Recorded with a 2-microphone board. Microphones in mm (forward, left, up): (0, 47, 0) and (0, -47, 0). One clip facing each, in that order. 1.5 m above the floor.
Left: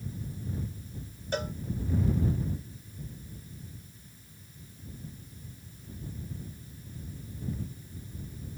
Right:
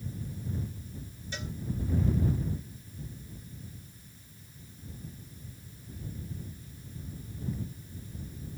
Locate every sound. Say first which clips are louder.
1.3 s a cowbell: left 9 dB; 55° left (ahead or behind)